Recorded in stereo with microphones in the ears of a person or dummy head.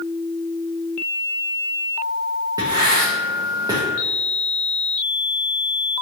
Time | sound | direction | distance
2.6 | writing | 25° right (ahead or behind) | 0.6 m